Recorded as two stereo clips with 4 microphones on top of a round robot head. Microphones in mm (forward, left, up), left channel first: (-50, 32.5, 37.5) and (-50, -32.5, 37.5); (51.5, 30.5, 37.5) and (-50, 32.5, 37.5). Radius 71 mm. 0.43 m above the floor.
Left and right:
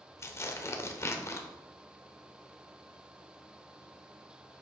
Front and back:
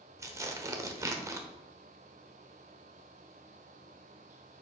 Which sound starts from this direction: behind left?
Tearing paper, at 0.2 s.